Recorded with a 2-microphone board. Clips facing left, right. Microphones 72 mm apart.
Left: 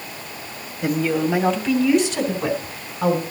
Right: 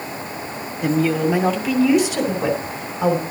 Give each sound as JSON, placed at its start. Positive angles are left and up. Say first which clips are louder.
{"t": 0.8, "sound": "a woman speaking", "louder": "right 2 dB", "side_deg": 0, "distance_m": 2.0}